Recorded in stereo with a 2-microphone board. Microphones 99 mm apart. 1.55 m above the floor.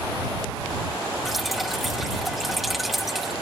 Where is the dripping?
Centre (ahead or behind).